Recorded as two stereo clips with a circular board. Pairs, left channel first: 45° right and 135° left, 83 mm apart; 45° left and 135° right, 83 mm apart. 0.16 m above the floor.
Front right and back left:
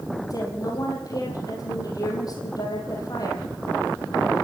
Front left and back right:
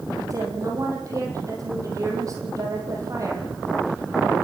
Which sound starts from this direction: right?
A woman speaking, at 0.3 s.